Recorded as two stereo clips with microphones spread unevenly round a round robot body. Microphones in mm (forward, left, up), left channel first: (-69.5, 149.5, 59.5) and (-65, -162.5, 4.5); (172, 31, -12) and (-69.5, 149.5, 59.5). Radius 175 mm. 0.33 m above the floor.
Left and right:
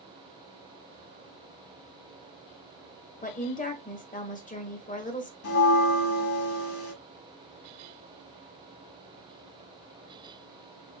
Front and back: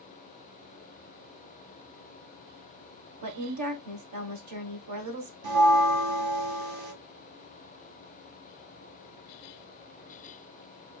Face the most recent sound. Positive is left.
turn(degrees=140)